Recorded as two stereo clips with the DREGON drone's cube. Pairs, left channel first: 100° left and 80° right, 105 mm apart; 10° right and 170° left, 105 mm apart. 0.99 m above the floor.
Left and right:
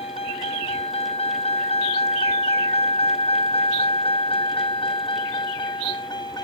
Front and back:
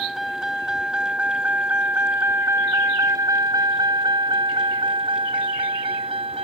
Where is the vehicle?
80° left; by 6.5 s 150° left.